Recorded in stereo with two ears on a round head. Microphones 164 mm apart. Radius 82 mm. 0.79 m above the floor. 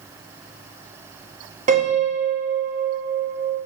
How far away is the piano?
About 1.2 m.